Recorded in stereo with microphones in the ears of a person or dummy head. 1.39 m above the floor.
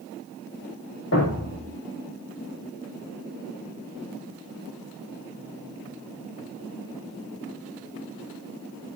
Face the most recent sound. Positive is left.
turn(degrees=65)  # may be behind; listen again after turning